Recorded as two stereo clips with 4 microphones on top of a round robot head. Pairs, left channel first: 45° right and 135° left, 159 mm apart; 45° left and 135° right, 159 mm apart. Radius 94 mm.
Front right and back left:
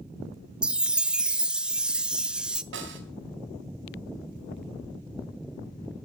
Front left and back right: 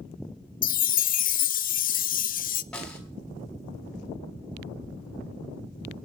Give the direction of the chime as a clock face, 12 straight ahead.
10 o'clock.